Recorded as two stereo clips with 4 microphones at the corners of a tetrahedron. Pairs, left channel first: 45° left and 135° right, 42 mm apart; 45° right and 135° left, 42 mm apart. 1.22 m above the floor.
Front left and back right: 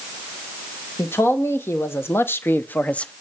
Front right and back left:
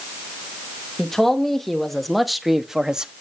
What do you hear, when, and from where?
1.0 s a man speaking: 40° left, 1.6 m; by 3.1 s 90° left, 0.5 m